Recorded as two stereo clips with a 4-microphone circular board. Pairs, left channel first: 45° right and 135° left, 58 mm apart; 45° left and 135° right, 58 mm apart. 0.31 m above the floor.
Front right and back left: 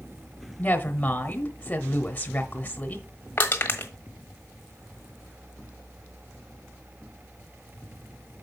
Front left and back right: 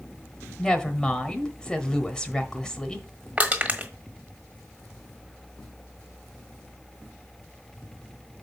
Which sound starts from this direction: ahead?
A woman speaking, at 0.6 s.